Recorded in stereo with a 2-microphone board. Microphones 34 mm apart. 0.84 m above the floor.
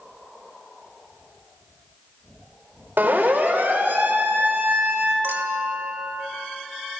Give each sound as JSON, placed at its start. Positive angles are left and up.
{"t": 3.0, "sound": "a siren", "side_deg": -75, "distance_m": 4.0}
{"t": 5.2, "sound": "a clink", "side_deg": -85, "distance_m": 2.0}